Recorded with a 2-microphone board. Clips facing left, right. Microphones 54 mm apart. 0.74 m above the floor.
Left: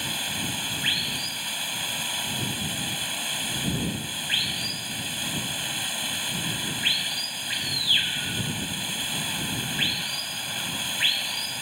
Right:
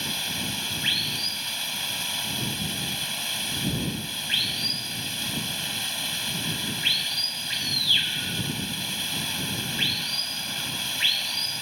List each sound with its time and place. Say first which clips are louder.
0.0 s running water: even; 5° left (ahead or behind)